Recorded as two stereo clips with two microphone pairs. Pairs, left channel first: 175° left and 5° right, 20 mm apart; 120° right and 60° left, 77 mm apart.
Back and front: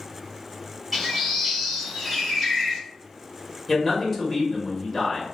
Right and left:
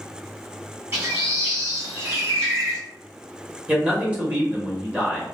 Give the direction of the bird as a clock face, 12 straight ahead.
9 o'clock.